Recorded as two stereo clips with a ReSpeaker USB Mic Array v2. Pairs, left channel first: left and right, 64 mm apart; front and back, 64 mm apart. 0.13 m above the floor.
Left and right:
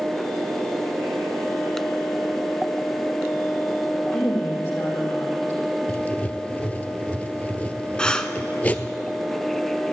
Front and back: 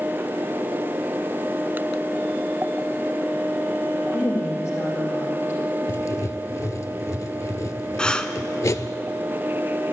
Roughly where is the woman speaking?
Ahead left.